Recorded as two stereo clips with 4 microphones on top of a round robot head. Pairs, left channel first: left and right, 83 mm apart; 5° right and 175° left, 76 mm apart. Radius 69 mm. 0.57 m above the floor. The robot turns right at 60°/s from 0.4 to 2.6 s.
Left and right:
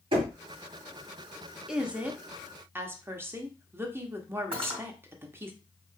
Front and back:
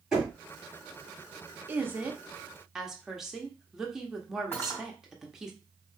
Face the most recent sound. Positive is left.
turn(degrees=-80)